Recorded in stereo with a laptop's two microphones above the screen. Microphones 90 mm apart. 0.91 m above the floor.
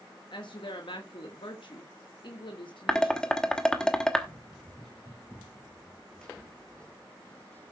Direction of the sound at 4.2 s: 5° left (ahead or behind).